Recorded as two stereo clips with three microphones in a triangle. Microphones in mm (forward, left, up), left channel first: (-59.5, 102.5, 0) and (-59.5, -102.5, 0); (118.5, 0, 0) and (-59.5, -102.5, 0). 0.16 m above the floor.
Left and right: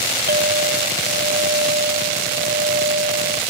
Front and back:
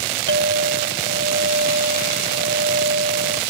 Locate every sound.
0.3 s a clink: 130° right